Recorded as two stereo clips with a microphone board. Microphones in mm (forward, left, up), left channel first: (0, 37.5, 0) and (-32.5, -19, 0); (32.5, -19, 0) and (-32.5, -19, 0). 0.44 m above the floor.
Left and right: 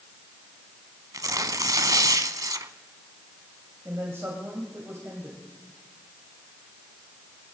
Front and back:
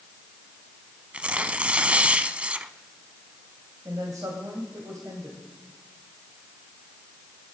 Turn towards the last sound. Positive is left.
turn(degrees=-165)